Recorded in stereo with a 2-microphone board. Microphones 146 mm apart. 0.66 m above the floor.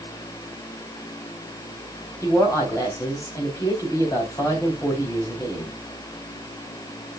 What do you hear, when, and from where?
2.2 s a woman speaking: 25° left (ahead or behind), 4 m